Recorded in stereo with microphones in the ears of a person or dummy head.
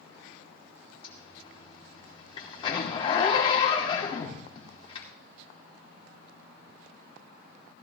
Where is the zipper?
25° left (ahead or behind), 2.5 m.